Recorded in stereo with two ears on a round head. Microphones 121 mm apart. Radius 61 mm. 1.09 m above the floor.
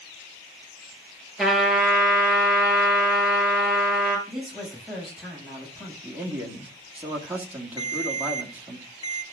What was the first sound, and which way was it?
A trumpet, centre (ahead or behind).